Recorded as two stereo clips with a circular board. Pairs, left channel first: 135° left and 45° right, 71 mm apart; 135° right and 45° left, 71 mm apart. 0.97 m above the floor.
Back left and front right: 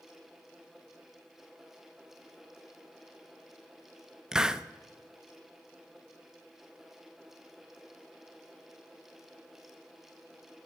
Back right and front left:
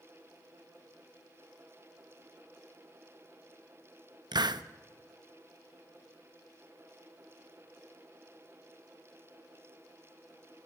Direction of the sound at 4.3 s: 35° left.